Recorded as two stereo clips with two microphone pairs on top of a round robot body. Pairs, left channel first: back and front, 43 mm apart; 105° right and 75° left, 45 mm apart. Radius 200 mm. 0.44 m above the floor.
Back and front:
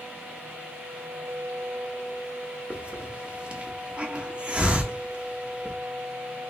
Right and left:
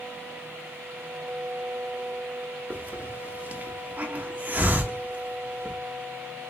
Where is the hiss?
50° left, 1.1 m.